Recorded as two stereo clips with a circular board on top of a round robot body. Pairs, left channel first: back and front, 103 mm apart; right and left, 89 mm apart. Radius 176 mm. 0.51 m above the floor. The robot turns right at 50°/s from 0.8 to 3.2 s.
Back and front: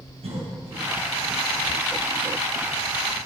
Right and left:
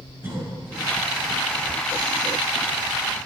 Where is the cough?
25° left, 5 m.